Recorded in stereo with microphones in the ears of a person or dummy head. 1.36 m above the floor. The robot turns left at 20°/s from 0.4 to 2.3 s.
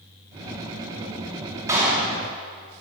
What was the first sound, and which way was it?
A clap, 15° right (ahead or behind).